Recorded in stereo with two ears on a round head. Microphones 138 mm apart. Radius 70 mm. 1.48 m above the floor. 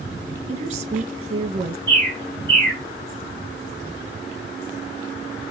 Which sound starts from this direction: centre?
A bird, at 1.9 s.